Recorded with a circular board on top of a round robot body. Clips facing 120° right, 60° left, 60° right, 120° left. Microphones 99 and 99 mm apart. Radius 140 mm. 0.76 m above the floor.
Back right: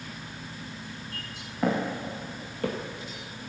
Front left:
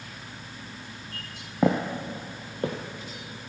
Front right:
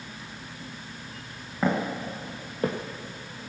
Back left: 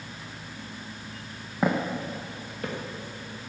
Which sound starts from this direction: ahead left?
Footsteps, at 1.6 s.